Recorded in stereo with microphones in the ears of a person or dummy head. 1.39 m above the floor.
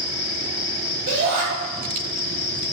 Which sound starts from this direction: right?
A shout, at 1.1 s.